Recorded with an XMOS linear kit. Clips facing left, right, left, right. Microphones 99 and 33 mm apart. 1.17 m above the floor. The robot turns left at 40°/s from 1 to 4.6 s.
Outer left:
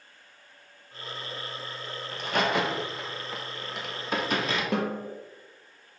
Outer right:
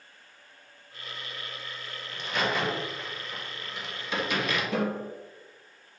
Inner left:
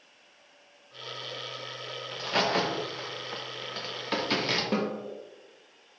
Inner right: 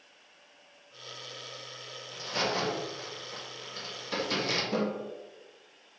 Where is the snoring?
I don't hear snoring.